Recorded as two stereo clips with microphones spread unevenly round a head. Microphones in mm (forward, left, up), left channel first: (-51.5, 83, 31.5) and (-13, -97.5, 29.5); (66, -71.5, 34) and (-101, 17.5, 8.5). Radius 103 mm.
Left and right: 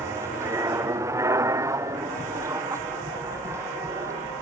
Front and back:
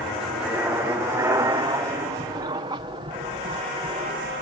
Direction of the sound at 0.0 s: 135° right.